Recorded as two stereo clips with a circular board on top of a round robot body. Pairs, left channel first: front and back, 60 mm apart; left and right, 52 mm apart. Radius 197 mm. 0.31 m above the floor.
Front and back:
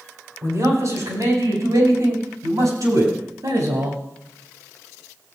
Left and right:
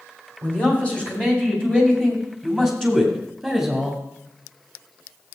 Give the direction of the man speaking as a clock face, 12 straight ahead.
7 o'clock.